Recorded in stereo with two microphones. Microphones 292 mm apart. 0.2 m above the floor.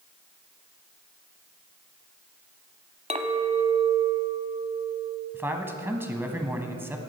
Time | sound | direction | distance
3.1 | a clink | 25° right (ahead or behind) | 0.9 m
5.3 | a man speaking | 10° right (ahead or behind) | 1.3 m